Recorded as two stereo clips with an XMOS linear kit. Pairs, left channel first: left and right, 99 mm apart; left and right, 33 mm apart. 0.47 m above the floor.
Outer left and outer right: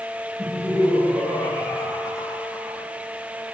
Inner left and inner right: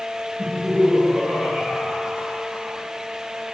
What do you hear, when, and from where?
0.4 s laughter: 20° left (ahead or behind), 8.5 m; by 2.9 s centre (ahead or behind), 6.5 m